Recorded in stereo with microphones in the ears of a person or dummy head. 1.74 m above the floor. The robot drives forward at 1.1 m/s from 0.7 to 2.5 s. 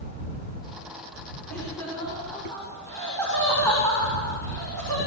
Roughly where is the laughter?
Centre.